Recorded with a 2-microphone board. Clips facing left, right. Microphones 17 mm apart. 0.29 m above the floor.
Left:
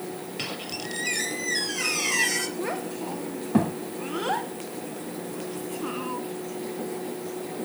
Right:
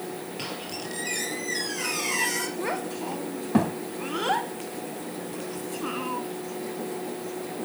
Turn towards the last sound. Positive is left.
turn(degrees=-15)  # may be behind; listen again after turning